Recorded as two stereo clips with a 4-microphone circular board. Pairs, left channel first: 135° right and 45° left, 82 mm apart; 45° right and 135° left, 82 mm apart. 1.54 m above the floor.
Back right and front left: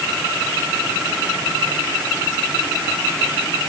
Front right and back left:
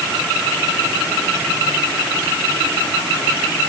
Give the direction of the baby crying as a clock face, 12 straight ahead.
No baby crying in this recording.